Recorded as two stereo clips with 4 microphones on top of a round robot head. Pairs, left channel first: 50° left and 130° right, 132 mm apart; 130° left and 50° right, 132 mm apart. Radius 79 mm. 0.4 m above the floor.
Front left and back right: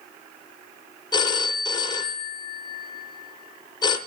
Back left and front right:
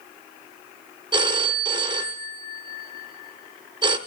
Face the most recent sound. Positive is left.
turn(degrees=0)